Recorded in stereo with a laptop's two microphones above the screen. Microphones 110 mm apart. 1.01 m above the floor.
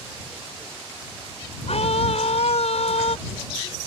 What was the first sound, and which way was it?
A scream, 75° left (ahead or behind).